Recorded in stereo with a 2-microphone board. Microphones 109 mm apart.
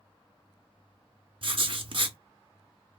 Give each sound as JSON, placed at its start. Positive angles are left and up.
{"t": 1.4, "sound": "writing", "side_deg": -55, "distance_m": 0.6}